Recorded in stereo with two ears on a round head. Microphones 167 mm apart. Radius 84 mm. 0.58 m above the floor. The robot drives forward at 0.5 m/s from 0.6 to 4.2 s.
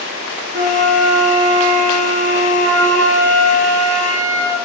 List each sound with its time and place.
0.5 s a flute: 60° right (ahead or behind), 3 m; by 4.6 s 80° right, 2.5 m